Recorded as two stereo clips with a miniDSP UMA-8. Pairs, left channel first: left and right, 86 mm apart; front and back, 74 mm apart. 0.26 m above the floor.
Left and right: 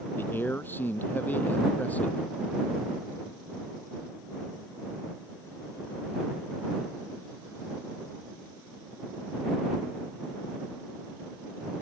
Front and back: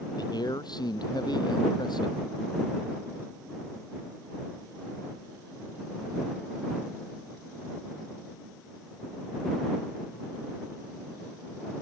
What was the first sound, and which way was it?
A man speaking, 25° left.